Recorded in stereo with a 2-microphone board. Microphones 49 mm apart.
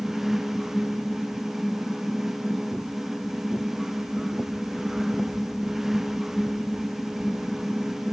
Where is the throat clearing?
No throat clearing in this recording.